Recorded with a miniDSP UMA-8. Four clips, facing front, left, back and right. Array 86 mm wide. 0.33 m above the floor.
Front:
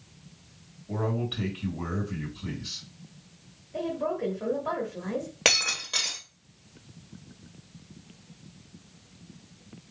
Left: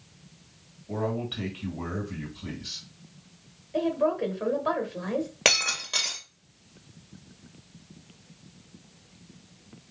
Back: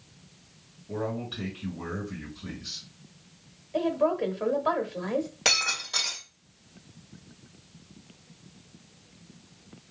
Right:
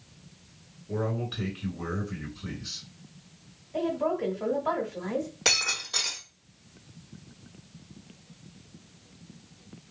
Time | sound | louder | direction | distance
0.9 | a man speaking | left 1 dB, front 2 dB | 60° left | 2.5 m
3.7 | a woman speaking | left 3 dB, back 5 dB | 145° left | 1.1 m
5.5 | breaking glass | left 4 dB, front 1 dB | 55° left | 2 m